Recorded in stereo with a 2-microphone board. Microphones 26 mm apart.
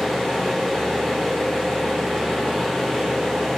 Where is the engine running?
35° left (ahead or behind), 2.5 m.